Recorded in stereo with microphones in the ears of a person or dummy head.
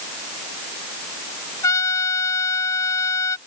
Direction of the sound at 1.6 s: 20° left (ahead or behind).